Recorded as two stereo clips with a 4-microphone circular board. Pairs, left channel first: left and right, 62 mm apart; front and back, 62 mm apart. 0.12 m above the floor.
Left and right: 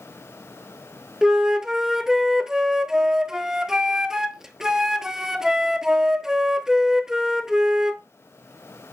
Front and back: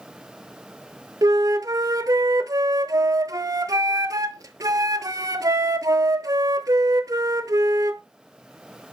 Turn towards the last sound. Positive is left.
turn(degrees=-170)